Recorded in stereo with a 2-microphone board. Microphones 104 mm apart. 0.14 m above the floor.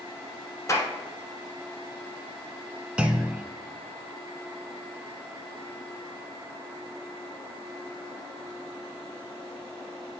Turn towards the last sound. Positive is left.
turn(degrees=-10)  # may be behind; listen again after turning